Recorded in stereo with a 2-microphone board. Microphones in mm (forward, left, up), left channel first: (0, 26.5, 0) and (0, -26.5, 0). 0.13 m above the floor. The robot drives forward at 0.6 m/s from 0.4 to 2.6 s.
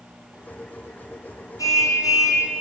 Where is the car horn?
75° left (ahead or behind), 3.5 m; by 2.5 s 70° left (ahead or behind), 3.5 m.